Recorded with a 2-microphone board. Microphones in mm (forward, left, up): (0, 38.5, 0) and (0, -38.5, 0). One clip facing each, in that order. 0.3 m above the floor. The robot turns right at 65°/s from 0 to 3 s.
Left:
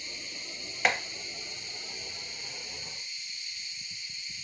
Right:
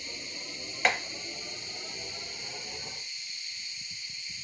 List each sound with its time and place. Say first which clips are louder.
0.8 s tapping: even; 5° left (ahead or behind), 0.7 m; by 1.0 s 5° right (ahead or behind), 0.7 m